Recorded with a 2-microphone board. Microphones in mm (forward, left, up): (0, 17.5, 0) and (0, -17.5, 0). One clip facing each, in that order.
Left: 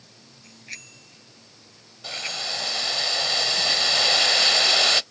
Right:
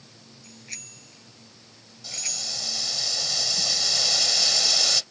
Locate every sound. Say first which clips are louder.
0.4 s a bicycle bell: left 3 dB; 15° left (ahead or behind); by 2.6 s 30° left (ahead or behind)
2.0 s boiling: left 5 dB; 50° left (ahead or behind)